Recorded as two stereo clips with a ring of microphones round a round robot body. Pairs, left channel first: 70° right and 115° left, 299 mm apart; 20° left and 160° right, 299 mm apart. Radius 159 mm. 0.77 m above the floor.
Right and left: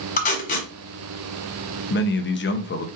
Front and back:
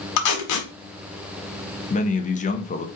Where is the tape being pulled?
5° right, 1.3 m.